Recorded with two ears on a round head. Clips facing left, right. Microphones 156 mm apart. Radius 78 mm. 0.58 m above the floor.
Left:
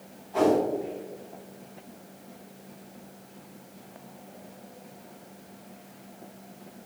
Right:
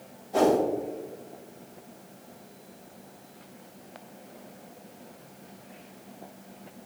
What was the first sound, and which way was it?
A whoosh, 55° right (ahead or behind).